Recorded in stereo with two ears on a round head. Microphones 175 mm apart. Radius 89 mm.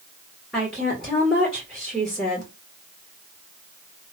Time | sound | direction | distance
0.5 | a woman speaking | centre (ahead or behind) | 1.9 m